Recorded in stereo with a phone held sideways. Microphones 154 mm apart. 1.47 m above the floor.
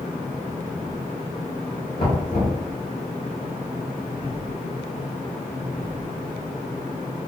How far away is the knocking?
About 1.8 m.